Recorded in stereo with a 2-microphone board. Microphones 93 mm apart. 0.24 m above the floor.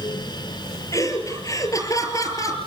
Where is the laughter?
35° left (ahead or behind), 5.5 m.